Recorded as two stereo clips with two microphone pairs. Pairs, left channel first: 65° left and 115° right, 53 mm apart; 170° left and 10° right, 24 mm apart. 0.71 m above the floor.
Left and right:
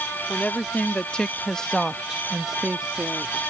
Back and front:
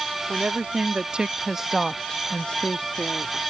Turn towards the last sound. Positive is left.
turn(degrees=180)